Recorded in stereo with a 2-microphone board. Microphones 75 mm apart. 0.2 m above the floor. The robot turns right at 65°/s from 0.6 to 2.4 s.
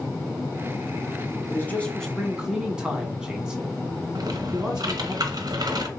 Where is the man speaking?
135° left, 1.4 m; by 5.2 s 165° right, 1.4 m.